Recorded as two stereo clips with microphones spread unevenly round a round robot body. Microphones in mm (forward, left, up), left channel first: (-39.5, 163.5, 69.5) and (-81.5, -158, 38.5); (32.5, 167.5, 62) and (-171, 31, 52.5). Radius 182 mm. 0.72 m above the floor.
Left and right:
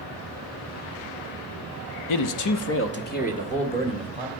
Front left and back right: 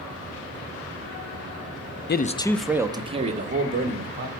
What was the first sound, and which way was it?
A man speaking, 80° left.